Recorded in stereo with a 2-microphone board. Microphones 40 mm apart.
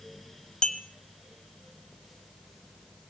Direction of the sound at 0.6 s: 20° left (ahead or behind).